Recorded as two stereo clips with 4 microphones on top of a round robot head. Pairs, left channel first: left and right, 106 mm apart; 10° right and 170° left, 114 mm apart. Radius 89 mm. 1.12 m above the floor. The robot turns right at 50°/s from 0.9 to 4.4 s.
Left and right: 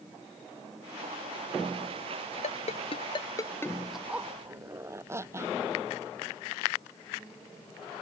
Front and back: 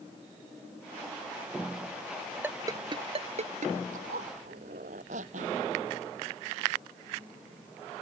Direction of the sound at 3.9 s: Straight behind.